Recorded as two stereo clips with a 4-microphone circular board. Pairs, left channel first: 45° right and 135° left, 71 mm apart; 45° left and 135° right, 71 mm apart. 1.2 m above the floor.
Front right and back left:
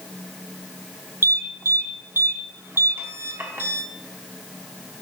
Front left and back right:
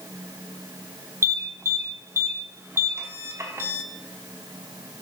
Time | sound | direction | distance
1.2 | an alarm | 175° right | 1.0 m